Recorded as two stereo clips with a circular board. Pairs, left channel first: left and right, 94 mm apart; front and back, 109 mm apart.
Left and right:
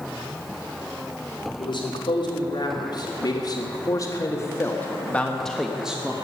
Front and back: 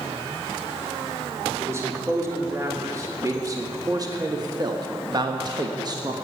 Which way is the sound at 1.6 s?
115° left.